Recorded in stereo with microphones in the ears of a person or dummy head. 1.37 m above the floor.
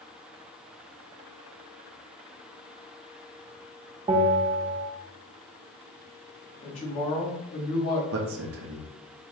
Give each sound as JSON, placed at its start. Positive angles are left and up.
{"t": 4.1, "sound": "a bell", "side_deg": -25, "distance_m": 0.7}
{"t": 6.6, "sound": "a woman speaking", "side_deg": 30, "distance_m": 1.9}
{"t": 8.1, "sound": "a man speaking", "side_deg": -70, "distance_m": 1.2}